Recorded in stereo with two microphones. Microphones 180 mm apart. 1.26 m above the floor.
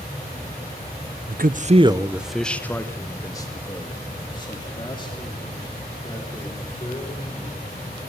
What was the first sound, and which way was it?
A man speaking, 60° right (ahead or behind).